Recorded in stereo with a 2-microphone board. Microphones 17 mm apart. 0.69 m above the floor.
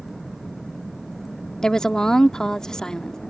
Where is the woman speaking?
40° left (ahead or behind).